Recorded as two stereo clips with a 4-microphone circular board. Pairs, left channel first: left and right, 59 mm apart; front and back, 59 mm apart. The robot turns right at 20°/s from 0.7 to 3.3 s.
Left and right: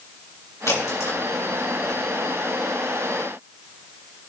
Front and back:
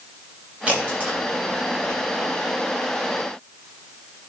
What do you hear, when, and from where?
0.7 s a crack: 115° left, 4 m; by 2.0 s 140° left, 4 m